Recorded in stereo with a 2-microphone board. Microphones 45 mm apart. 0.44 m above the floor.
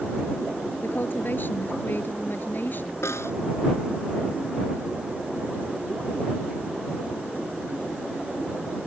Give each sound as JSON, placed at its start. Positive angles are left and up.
{"t": 0.8, "sound": "a woman speaking", "side_deg": 45}
{"t": 3.0, "sound": "a snare drum", "side_deg": 75}